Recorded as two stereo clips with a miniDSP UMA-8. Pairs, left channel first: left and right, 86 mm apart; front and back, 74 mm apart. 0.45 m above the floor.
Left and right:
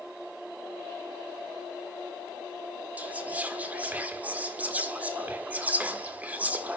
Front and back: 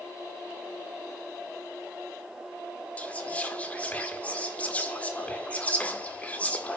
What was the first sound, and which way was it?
Whispering, 45° right.